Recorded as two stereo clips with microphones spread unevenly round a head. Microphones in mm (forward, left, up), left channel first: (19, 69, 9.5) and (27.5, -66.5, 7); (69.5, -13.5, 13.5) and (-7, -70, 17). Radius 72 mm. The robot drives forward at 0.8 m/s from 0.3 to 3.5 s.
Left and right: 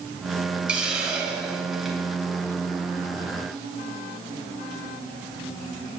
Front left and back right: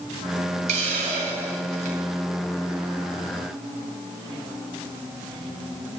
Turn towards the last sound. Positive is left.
turn(degrees=-175)